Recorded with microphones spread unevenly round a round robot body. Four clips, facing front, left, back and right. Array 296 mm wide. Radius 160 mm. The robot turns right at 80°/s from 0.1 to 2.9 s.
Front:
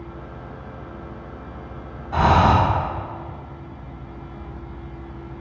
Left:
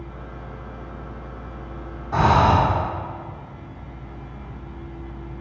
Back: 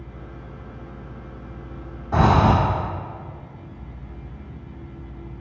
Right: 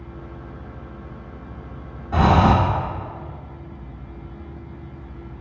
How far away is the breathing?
About 1.0 m.